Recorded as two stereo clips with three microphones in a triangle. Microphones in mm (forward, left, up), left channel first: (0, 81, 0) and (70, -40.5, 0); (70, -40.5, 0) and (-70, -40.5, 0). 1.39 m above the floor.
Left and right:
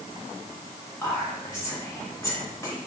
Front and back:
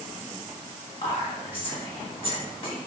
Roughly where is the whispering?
Ahead left.